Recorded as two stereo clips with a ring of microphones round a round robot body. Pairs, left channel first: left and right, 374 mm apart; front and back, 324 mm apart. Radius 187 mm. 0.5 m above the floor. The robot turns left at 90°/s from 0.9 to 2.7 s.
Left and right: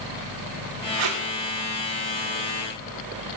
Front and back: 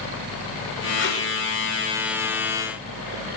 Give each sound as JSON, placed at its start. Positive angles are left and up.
{"t": 1.0, "sound": "tape being pulled", "azimuth_deg": -55, "distance_m": 5.0}